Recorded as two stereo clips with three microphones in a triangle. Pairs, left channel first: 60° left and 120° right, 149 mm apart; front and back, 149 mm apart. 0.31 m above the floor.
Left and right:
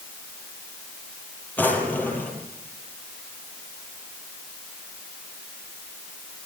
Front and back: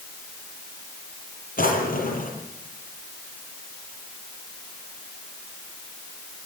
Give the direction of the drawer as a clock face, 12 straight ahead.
1 o'clock.